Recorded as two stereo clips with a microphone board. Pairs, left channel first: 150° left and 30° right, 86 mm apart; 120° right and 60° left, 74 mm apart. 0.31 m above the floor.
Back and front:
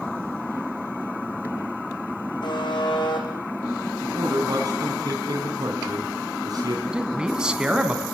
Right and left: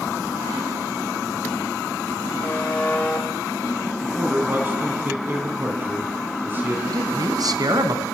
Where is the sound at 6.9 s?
50° left, 2.5 m.